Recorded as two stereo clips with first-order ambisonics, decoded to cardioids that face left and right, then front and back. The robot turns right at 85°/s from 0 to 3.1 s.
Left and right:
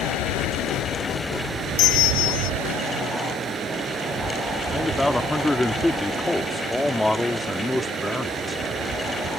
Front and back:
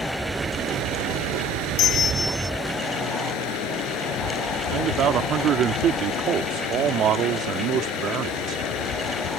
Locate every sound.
0.0 s running water: 70° left; by 9.4 s 30° right
1.8 s a bell: 45° left; by 2.5 s 105° left
4.7 s a man speaking: 175° left